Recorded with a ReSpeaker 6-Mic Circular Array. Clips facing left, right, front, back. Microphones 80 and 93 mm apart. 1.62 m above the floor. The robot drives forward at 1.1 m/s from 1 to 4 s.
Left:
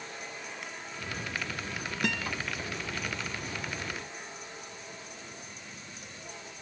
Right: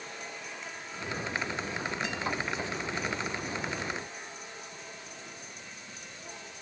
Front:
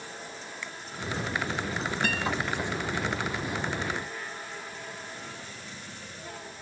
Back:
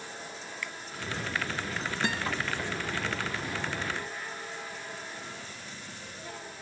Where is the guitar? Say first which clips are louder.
Left 1 dB, front 1 dB; 110° left.